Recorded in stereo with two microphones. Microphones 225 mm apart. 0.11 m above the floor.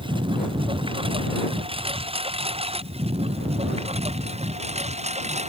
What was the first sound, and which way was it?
A lawn mower, 20° right (ahead or behind).